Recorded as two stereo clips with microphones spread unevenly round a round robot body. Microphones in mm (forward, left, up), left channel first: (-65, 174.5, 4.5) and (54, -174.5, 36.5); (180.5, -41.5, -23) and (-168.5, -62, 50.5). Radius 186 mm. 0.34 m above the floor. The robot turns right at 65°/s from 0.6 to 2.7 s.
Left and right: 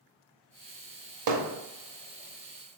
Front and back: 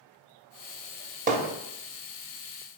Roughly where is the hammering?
Right.